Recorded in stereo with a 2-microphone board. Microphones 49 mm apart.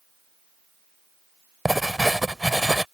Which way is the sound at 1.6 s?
Centre (ahead or behind).